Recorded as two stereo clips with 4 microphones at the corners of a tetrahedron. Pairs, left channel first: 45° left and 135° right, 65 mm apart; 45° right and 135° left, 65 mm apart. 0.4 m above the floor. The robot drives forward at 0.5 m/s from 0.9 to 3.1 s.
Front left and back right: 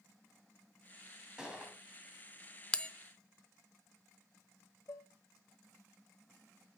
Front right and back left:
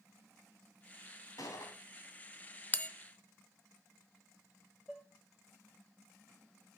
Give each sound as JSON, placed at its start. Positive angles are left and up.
{"t": 1.4, "sound": "a gunshot", "azimuth_deg": -55, "distance_m": 2.5}
{"t": 2.7, "sound": "a bell", "azimuth_deg": -15, "distance_m": 0.5}
{"t": 4.9, "sound": "dishes clattering", "azimuth_deg": 40, "distance_m": 1.4}